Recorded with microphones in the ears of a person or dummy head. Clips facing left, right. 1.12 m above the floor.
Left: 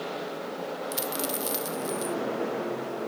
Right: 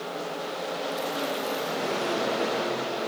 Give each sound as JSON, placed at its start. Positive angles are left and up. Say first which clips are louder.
{"t": 0.9, "sound": "a dropped coin", "louder": "right 2 dB", "side_deg": 45, "distance_m": 0.7}